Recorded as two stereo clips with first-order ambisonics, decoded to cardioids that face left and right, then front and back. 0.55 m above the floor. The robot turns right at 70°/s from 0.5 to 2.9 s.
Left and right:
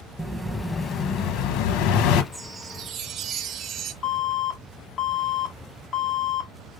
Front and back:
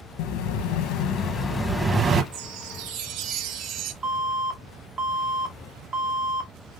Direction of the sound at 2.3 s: 175° left.